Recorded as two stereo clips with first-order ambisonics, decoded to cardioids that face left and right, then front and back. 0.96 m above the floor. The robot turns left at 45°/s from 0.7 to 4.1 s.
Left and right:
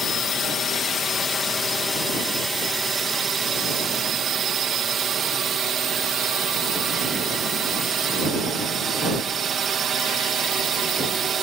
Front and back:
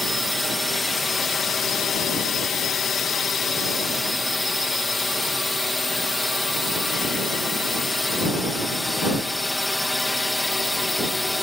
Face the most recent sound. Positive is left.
turn(degrees=-80)